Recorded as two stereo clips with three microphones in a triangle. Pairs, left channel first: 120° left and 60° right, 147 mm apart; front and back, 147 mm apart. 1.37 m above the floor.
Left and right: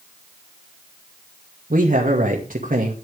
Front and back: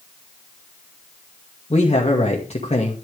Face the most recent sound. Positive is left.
turn(degrees=-40)